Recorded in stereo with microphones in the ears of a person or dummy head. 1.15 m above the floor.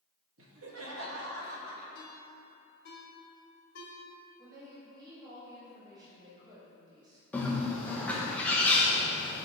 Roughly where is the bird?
Centre.